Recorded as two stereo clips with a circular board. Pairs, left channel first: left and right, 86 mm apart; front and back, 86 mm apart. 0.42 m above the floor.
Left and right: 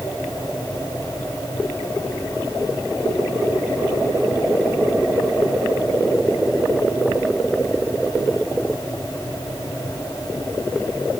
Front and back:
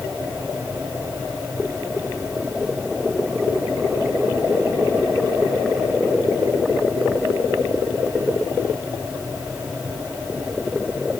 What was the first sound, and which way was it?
Only background noise.